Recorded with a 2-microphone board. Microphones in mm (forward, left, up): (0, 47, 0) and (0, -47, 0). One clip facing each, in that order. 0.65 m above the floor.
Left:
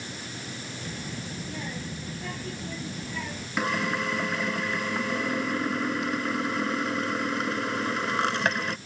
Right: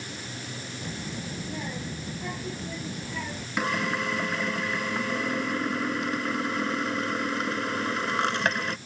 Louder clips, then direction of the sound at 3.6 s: Even; centre (ahead or behind).